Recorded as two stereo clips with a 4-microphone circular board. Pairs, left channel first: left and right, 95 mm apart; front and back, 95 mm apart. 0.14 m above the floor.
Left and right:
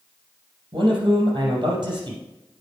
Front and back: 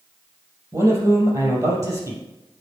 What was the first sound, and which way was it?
A man speaking, 125° right.